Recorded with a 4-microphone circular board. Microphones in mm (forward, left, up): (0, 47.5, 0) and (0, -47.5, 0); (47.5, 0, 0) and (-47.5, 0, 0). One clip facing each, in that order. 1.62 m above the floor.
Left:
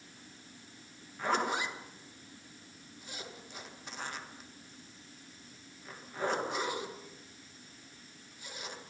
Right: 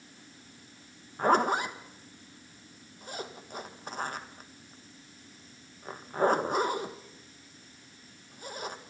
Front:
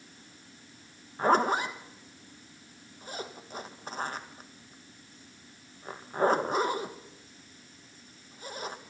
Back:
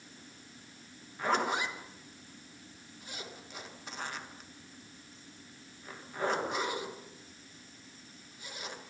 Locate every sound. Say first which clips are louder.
1.2 s a zipper: right 7 dB, front 6 dB; 50° right, 1.6 m